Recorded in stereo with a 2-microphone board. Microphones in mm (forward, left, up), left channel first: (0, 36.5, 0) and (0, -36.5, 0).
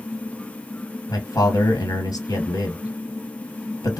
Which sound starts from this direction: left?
A man speaking, at 1.1 s.